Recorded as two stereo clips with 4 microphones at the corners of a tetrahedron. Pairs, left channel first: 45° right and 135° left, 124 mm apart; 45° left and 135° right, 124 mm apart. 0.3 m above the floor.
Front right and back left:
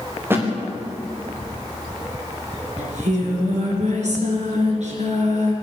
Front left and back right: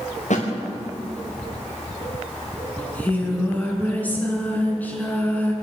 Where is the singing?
120° left, 4.5 m.